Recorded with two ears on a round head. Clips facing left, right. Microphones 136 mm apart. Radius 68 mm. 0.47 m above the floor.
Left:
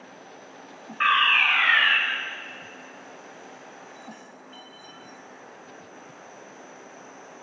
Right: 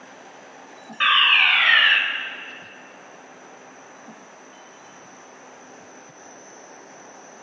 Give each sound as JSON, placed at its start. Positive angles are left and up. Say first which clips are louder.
{"t": 1.0, "sound": "a fire alarm", "louder": "right 1 dB", "side_deg": -40, "distance_m": 3.5}